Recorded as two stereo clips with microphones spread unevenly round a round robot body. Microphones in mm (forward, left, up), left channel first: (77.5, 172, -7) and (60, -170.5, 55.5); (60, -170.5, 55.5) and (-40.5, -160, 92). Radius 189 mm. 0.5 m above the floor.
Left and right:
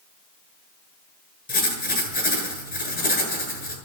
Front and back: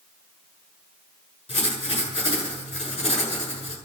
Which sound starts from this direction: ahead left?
Writing, at 1.5 s.